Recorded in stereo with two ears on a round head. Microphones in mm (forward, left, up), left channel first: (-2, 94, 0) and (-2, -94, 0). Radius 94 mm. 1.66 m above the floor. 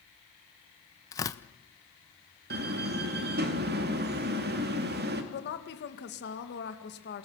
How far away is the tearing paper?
About 0.8 m.